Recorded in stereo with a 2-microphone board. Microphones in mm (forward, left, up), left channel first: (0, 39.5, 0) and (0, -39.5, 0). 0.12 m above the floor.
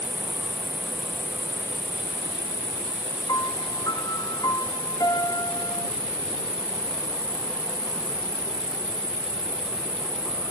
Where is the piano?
50° left (ahead or behind).